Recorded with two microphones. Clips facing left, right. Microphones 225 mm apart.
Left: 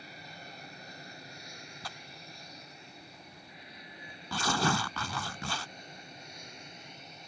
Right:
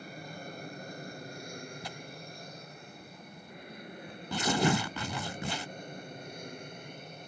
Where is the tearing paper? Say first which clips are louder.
Right 5 dB; 20° right (ahead or behind).